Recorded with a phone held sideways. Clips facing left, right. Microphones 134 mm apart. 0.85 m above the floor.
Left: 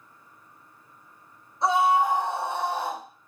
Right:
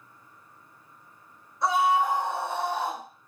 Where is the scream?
25° left (ahead or behind), 2.5 m; by 3.0 s 10° left (ahead or behind), 3 m.